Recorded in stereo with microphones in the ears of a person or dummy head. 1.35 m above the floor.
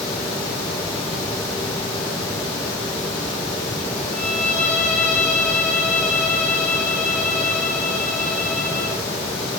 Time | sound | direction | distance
4.1 | a violin | 10° left (ahead or behind) | 6 m